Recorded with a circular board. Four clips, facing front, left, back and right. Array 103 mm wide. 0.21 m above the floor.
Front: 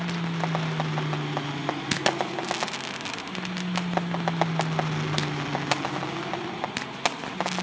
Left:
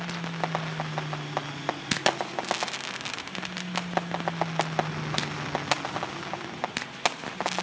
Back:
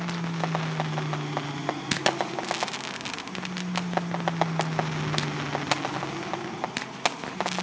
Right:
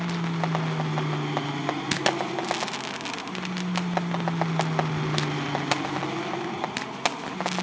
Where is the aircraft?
85° right.